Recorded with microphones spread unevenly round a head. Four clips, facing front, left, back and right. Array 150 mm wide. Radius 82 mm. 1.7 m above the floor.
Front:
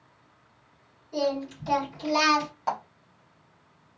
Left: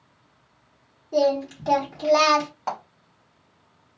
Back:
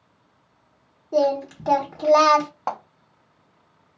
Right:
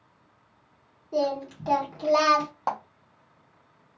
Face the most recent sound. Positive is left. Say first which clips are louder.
# right 2 dB, even
turn(degrees=-155)